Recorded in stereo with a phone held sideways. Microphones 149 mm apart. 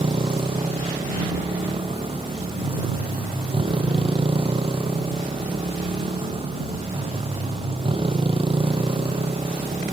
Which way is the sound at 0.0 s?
35° right (ahead or behind).